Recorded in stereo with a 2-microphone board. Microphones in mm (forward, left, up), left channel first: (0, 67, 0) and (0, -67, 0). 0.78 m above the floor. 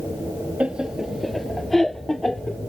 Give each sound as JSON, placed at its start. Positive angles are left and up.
{"t": 0.6, "sound": "laughter", "side_deg": -10}